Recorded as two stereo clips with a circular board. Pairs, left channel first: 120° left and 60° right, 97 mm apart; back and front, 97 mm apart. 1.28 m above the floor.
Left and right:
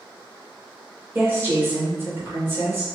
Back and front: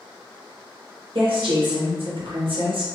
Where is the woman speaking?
5° left, 0.8 m.